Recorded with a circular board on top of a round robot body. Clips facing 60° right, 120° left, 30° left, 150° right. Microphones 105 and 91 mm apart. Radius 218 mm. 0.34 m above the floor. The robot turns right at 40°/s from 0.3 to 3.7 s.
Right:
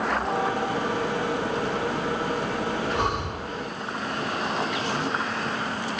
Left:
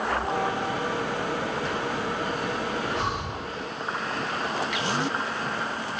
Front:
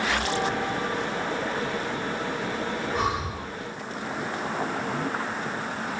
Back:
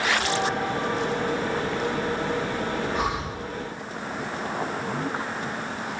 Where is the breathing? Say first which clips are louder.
Right 3 dB, even; 65° right, 1.6 m; by 3.5 s 45° right, 1.6 m.